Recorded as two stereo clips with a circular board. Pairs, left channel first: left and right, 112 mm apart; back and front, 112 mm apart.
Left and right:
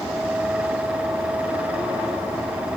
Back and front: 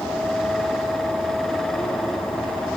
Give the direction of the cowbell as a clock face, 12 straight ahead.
No cowbell in this recording.